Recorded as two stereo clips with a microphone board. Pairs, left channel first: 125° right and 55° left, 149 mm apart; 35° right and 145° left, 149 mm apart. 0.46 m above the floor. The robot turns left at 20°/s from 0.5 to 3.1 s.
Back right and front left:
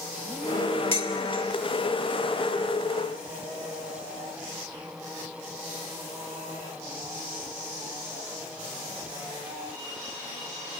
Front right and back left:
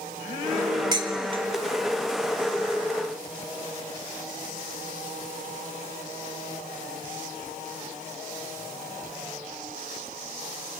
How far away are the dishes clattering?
About 1.0 m.